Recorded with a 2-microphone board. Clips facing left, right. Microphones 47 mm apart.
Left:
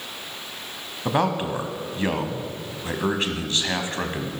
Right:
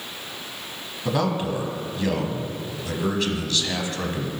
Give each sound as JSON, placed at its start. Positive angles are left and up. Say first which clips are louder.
{"t": 1.1, "sound": "a man speaking", "louder": "left 1 dB", "side_deg": 30, "distance_m": 1.3}